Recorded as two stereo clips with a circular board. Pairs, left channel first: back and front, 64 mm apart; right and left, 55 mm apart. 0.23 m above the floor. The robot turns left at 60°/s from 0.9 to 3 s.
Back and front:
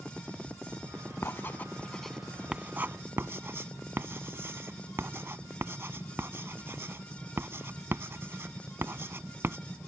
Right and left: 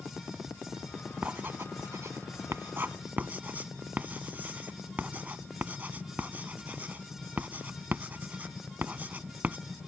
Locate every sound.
1.2 s writing: 145° left; by 9.6 s 40° left